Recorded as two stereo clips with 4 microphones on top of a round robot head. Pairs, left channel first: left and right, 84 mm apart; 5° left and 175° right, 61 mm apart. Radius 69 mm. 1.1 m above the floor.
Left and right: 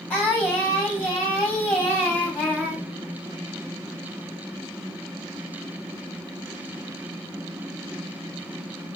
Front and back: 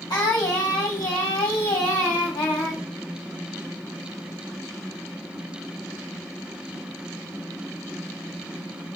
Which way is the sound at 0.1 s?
20° left.